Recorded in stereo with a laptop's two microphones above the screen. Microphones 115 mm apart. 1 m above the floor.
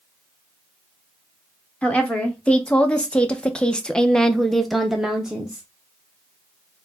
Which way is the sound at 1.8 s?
10° left (ahead or behind).